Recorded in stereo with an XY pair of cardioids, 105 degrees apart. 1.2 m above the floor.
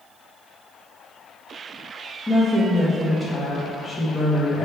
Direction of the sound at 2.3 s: Straight ahead.